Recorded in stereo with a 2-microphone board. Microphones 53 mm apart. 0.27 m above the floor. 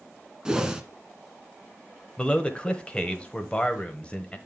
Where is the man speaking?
20° left (ahead or behind), 1.0 m.